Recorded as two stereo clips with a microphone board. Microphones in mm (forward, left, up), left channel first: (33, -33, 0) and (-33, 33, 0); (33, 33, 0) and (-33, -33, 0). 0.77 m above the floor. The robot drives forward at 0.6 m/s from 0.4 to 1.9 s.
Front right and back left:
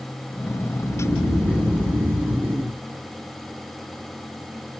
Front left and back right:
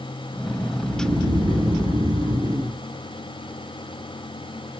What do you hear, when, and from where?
0.8 s snoring: 140° right, 1.0 m; by 2.8 s 155° right, 1.6 m